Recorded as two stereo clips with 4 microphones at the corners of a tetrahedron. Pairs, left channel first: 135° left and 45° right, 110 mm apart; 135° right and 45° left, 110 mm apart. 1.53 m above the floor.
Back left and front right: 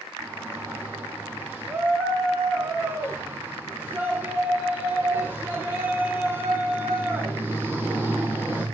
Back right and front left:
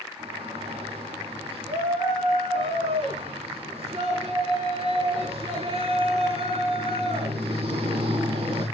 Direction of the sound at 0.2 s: 25° left.